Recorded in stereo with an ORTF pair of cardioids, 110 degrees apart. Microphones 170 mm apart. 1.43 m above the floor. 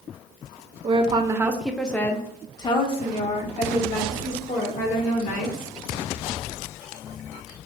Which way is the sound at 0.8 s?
35° right.